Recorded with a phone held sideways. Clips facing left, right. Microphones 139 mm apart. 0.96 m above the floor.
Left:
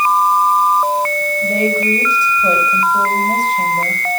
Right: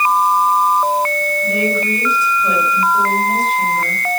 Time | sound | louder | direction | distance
1.4 | a woman speaking | left 3 dB | 30° left (ahead or behind) | 4.5 m